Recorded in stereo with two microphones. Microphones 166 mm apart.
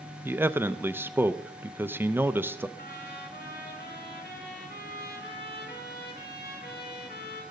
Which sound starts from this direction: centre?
A man speaking, at 0.2 s.